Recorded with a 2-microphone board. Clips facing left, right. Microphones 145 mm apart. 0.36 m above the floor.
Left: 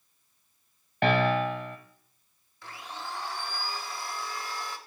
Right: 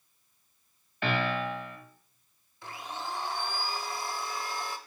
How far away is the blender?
About 0.6 m.